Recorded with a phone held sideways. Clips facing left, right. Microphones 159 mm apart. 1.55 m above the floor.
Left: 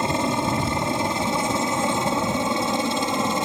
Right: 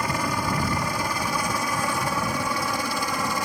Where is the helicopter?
25° left (ahead or behind).